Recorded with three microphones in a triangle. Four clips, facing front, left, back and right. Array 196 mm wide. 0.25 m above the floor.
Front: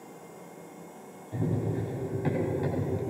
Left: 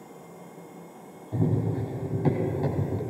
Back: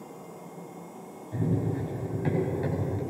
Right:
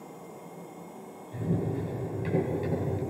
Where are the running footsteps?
90° left, 9 m.